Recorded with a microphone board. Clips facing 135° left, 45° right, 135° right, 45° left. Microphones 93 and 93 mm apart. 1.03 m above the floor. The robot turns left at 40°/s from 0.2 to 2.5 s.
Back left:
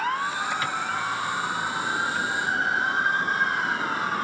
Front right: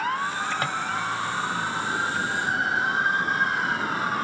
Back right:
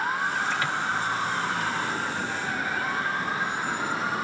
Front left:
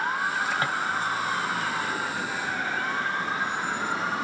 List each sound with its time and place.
0.6 s a drawer: 10° right, 1.8 m; by 0.8 s 15° right, 1.8 m